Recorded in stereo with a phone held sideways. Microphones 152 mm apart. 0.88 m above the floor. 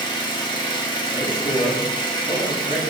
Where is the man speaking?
45° left (ahead or behind), 1.6 m.